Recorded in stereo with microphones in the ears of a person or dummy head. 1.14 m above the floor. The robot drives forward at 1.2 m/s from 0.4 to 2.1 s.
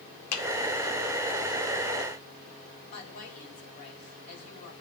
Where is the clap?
75° left (ahead or behind), 1.8 m.